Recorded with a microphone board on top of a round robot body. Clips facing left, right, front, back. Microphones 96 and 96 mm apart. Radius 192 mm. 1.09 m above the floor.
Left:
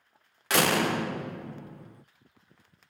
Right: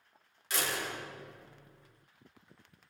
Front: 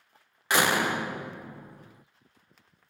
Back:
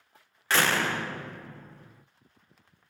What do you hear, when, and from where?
0.5 s a door slam: 75° left, 0.9 m